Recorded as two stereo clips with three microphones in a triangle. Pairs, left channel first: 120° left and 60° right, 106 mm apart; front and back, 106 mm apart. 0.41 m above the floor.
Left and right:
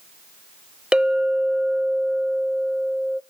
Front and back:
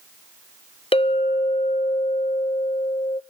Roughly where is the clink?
Ahead.